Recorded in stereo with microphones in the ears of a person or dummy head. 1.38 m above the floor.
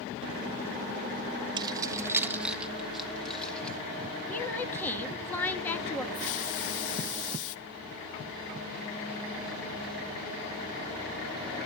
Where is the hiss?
70° left (ahead or behind), 0.7 m.